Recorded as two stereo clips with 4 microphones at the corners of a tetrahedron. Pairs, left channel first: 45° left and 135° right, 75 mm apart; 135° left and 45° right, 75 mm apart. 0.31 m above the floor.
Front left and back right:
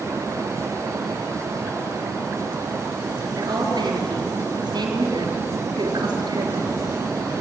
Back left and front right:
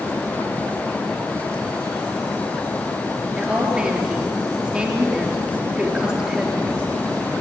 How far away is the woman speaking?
About 4.5 m.